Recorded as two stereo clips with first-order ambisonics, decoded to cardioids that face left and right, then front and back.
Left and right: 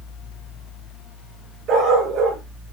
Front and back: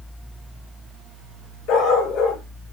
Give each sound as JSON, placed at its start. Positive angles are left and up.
{"t": 1.7, "sound": "a dog barking", "azimuth_deg": -35, "distance_m": 4.5}